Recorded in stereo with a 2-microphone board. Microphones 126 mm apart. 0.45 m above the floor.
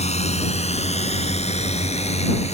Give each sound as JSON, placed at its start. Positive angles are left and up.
{"t": 0.0, "sound": "a drone", "side_deg": 60}